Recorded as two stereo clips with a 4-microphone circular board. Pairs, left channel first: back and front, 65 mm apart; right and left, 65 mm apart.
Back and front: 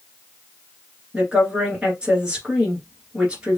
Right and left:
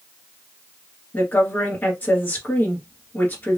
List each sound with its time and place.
1.1 s a woman speaking: 60° right, 1.8 m